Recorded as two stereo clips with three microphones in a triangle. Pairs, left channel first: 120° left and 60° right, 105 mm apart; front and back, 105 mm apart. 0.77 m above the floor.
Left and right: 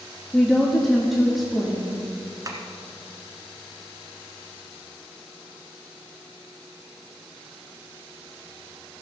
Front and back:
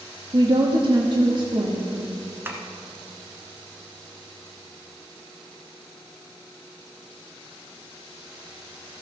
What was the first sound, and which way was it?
A woman speaking, 150° right.